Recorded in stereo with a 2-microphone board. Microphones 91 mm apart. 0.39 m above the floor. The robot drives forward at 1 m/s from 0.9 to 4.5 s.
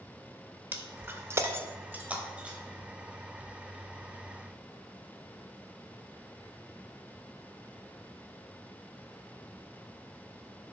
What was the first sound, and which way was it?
Breaking glass, 20° right (ahead or behind).